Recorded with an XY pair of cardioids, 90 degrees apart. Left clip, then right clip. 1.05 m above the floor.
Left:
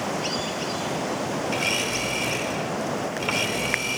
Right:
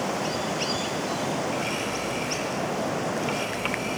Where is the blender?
65° left, 5 m.